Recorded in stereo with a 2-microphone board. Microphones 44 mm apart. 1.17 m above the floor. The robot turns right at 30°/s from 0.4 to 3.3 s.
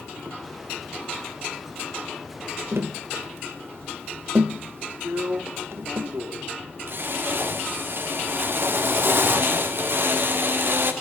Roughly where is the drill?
Right.